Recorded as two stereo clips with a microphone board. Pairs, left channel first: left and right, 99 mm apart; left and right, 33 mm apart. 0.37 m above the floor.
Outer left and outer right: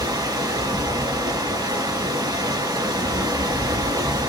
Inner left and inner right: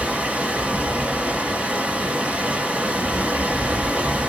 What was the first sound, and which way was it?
Running water, 40° right (ahead or behind).